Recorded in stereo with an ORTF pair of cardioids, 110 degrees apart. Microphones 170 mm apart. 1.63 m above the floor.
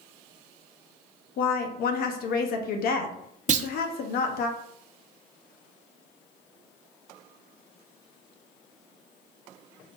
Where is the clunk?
50° right, 0.5 m.